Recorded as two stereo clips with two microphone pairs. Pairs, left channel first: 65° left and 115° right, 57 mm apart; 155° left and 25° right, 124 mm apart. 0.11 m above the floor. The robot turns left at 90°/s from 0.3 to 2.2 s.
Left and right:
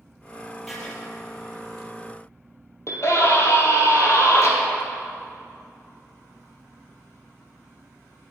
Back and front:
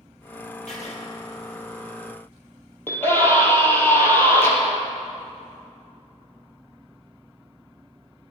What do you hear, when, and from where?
0.7 s writing: 155° left, 2.5 m; by 0.9 s 130° left, 2.5 m
2.9 s a scream: 85° left, 3 m